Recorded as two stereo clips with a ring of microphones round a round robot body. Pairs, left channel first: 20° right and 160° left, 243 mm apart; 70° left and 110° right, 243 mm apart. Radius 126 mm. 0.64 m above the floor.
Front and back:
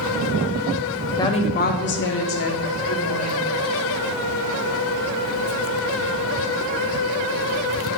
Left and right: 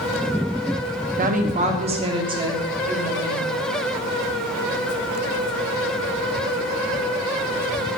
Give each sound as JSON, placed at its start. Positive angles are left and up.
{"t": 1.2, "sound": "a woman speaking", "azimuth_deg": -90, "distance_m": 0.7}